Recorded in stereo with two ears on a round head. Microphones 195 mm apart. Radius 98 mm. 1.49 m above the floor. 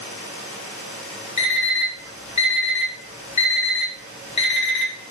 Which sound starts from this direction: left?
An alarm clock, at 1.4 s.